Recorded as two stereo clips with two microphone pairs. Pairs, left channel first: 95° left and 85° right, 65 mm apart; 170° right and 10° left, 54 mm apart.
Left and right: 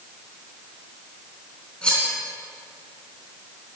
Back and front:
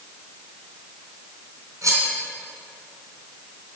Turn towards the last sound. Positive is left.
turn(degrees=20)